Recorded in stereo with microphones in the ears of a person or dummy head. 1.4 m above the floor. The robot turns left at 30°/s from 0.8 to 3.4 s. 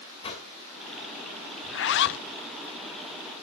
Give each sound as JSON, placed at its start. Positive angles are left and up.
{"t": 0.2, "sound": "a whoosh", "side_deg": 30, "distance_m": 2.0}
{"t": 1.6, "sound": "a zipper", "side_deg": 60, "distance_m": 0.5}